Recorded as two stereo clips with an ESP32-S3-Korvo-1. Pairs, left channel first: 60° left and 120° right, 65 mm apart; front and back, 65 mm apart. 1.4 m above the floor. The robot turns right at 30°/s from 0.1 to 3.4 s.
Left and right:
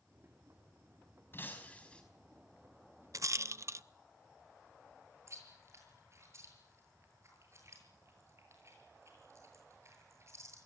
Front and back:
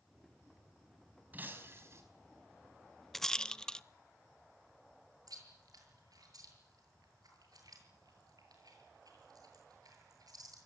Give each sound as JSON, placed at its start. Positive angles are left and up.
{"t": 1.3, "sound": "breaking glass", "azimuth_deg": 115, "distance_m": 4.5}
{"t": 3.1, "sound": "a rattle", "azimuth_deg": -85, "distance_m": 0.6}
{"t": 5.3, "sound": "chewing", "azimuth_deg": -165, "distance_m": 8.0}